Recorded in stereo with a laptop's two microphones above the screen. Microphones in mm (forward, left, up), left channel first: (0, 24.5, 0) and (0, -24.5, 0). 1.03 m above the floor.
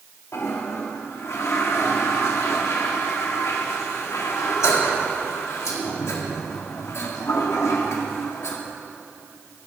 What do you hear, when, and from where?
0.3 s a toilet flushing: 85° left, 1.6 m